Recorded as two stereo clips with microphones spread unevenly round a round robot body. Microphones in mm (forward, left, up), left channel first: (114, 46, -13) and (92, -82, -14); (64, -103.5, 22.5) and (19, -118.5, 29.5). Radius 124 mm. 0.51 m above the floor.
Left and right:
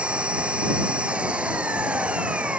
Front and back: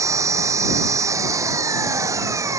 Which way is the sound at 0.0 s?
175° left.